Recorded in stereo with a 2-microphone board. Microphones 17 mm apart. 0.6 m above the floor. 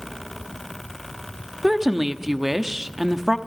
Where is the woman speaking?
15° right (ahead or behind), 0.9 m.